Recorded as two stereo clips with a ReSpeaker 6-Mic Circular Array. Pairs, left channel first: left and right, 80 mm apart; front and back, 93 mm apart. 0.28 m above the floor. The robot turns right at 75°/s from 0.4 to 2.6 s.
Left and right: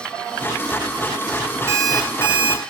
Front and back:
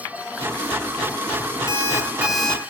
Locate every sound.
1.7 s an alarm clock: 145° right, 1.4 m; by 2.6 s 75° right, 1.4 m